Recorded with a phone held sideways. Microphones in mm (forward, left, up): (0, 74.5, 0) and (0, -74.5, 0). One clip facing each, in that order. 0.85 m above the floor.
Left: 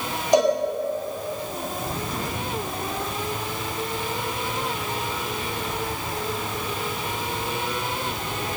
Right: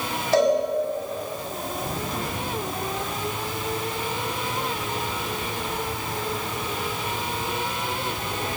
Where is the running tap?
No running tap in this recording.